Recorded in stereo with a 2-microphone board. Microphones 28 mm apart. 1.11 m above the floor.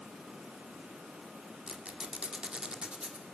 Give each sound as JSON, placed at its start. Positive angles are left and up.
{"t": 1.7, "sound": "a squeak", "side_deg": -40, "distance_m": 2.0}